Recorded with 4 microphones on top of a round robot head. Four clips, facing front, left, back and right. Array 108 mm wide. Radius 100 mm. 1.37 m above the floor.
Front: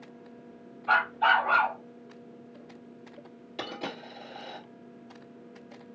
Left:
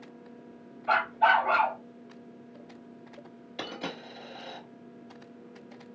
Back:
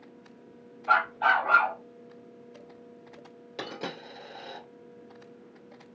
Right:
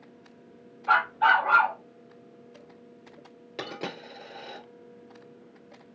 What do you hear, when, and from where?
0.9 s a dog barking: 100° right, 2 m
3.6 s a dropped coin: 110° right, 2 m